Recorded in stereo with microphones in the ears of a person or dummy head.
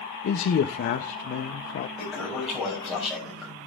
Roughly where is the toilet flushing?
Centre.